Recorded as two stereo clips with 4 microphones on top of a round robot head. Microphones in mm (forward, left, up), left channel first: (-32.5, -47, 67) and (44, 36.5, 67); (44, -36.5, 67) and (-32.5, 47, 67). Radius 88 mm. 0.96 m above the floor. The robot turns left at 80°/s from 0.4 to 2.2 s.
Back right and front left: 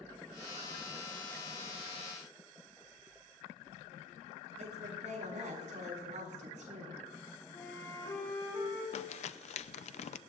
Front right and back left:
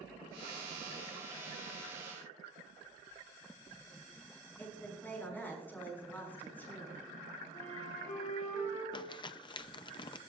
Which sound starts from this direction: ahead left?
A woman speaking, at 4.6 s.